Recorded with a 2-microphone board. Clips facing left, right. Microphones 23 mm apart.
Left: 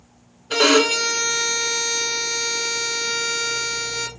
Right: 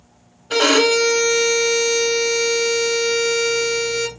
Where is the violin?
15° right (ahead or behind), 0.9 m.